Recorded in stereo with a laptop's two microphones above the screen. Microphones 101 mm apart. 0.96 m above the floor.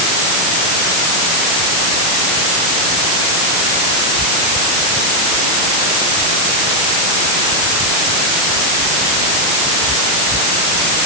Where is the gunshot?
I don't hear a gunshot.